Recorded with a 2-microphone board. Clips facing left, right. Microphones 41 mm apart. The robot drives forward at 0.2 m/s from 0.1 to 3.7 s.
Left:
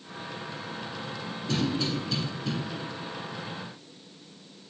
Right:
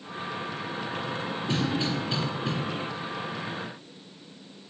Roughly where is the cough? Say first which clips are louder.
Even; right.